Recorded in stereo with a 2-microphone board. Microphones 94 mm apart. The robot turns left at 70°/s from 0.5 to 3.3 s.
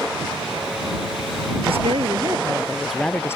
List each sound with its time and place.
1.6 s a woman speaking: 90° right; by 3.4 s 155° left